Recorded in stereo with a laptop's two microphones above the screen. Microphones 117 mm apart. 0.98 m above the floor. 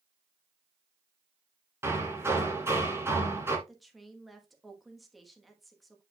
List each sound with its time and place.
1.8 s hammering: 20° right (ahead or behind), 2.5 m
3.7 s a woman speaking: centre (ahead or behind), 1.2 m